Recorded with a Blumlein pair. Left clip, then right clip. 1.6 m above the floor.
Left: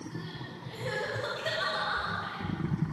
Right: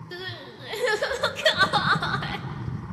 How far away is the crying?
About 1.8 m.